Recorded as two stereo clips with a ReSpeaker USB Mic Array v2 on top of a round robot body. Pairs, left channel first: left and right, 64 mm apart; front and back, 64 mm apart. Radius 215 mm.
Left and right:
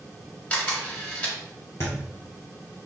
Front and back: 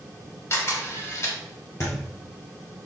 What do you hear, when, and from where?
0.5 s a camera shutter: 35° left, 2 m
1.8 s a thud: 45° left, 0.8 m